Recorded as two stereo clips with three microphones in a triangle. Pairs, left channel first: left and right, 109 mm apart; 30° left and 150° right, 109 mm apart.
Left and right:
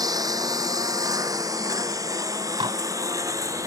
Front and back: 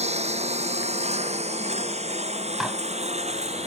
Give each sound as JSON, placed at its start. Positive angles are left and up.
{"t": 0.0, "sound": "a lawn mower", "azimuth_deg": -145}
{"t": 2.6, "sound": "dishes clattering", "azimuth_deg": -65}